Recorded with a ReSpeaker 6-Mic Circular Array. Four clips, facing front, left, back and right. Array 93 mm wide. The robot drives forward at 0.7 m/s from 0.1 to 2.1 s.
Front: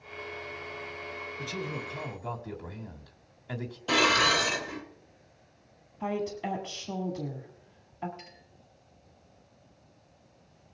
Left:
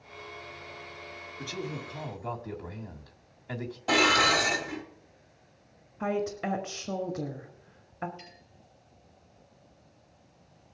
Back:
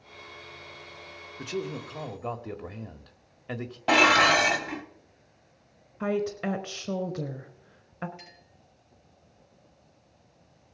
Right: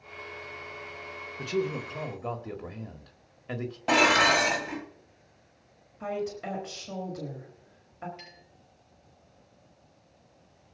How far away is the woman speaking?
About 1.5 m.